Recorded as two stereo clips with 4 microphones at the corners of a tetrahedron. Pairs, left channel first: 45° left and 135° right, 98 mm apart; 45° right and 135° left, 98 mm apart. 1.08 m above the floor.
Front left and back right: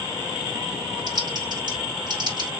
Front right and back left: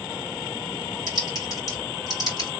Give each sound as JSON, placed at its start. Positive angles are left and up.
{"t": 1.1, "sound": "typing on a keyboard", "azimuth_deg": -95, "distance_m": 2.0}